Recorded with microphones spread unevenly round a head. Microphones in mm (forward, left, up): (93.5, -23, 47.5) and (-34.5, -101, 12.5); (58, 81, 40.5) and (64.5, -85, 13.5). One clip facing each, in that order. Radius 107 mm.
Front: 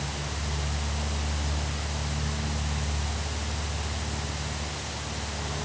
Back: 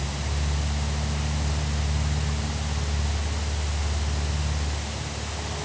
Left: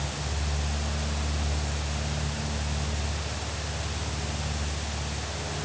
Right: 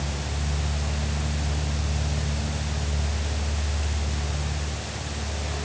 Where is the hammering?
No hammering in this recording.